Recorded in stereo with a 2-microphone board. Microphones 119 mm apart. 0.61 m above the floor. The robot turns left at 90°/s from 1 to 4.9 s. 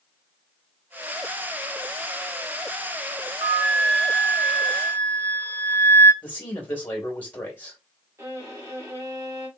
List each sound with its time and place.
3.4 s a flute: 105° right, 1.3 m; by 6.1 s 120° left, 1.3 m
6.2 s a man speaking: 15° left (ahead or behind), 2 m
8.2 s a violin: 25° right (ahead or behind), 2.5 m